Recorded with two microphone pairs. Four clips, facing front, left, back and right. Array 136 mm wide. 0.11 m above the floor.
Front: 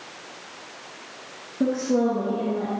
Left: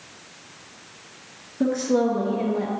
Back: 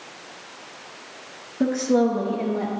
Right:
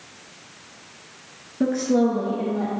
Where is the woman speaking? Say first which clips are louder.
Right 1 dB, back 2 dB; 170° right, 1.3 m; by 2.7 s 160° left, 1.7 m.